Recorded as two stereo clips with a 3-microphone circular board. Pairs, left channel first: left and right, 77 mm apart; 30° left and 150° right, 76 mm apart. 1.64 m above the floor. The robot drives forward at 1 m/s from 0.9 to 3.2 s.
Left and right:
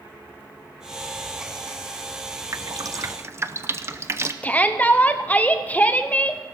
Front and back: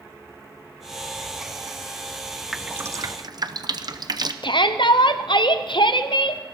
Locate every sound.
2.5 s dripping: 60° right, 0.6 m; by 4.3 s 140° right, 0.7 m
4.4 s a shout: 20° left, 1.0 m